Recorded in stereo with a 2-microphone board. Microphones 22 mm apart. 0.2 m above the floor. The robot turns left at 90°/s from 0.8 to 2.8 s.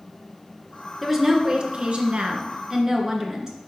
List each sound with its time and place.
1.0 s a woman speaking: 10° left, 2 m; by 3.5 s 150° right, 2 m